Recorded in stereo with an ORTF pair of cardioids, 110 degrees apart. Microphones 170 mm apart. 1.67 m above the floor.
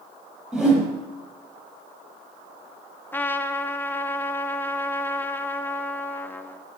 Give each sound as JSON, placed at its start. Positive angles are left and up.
{"t": 0.5, "sound": "a whoosh", "azimuth_deg": -5, "distance_m": 7.0}
{"t": 3.1, "sound": "a trumpet", "azimuth_deg": 10, "distance_m": 0.9}